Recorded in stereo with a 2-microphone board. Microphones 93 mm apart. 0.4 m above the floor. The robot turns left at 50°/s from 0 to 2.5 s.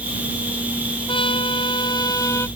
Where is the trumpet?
100° left; by 2.5 s 30° left.